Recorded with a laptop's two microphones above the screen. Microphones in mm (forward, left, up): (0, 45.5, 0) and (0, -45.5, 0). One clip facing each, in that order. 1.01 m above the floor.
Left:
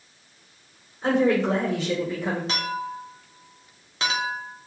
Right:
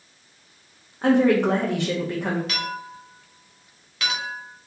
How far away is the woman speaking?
About 0.6 m.